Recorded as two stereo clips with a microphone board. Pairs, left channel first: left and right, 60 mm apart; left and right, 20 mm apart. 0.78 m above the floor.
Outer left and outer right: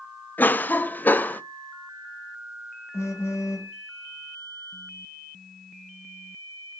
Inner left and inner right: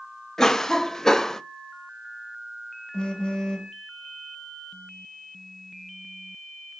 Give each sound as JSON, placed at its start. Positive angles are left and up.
{"t": 0.4, "sound": "a cough", "side_deg": 30, "distance_m": 0.7}
{"t": 2.9, "sound": "a phone buzzing", "side_deg": 50, "distance_m": 1.5}